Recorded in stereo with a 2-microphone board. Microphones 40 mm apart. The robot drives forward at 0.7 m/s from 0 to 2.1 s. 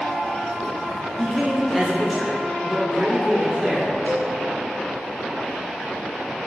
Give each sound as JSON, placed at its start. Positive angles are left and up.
{"t": 1.2, "sound": "a man speaking", "side_deg": 5, "distance_m": 1.5}
{"t": 4.1, "sound": "a cowbell", "side_deg": 70, "distance_m": 4.0}